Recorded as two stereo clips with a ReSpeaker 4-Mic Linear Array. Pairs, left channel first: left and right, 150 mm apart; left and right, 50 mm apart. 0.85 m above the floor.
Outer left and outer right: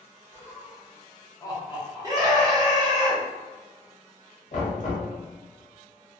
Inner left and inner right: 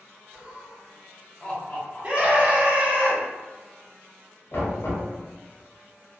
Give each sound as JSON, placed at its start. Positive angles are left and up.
{"t": 0.3, "sound": "laughter", "side_deg": -20, "distance_m": 0.8}
{"t": 2.0, "sound": "a scream", "side_deg": -25, "distance_m": 0.8}
{"t": 4.5, "sound": "knocking", "side_deg": 55, "distance_m": 0.9}